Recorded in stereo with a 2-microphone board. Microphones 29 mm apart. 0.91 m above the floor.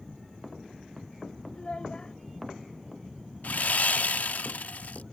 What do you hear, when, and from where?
1.5 s a child speaking: 35° left (ahead or behind)
3.4 s sawing: 65° left (ahead or behind)